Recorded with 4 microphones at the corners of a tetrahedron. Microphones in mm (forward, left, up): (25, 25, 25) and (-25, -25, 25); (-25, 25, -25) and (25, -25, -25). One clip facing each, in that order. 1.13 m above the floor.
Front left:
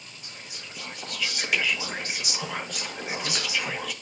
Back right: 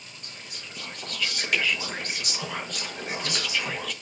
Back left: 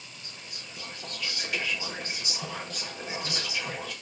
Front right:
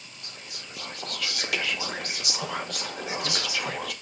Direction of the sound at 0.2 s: 40° right.